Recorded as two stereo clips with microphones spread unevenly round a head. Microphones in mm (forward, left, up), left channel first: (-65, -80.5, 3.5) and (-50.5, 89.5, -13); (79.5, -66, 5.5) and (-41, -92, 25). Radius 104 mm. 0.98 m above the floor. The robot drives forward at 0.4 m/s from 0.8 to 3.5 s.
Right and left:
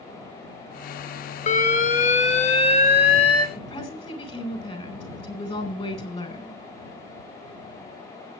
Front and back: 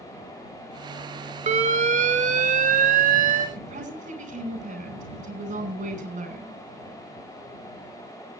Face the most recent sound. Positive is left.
turn(degrees=-150)